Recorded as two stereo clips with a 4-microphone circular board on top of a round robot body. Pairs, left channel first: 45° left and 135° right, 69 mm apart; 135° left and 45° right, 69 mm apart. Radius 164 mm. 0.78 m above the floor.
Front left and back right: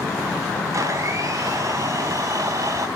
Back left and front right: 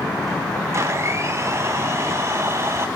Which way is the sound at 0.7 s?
95° right.